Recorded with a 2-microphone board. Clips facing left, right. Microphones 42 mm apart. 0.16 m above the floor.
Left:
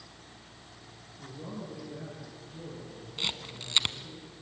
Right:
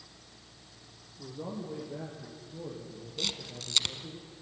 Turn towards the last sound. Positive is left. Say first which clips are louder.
# left 2 dB
turn(degrees=25)  # may be behind; listen again after turning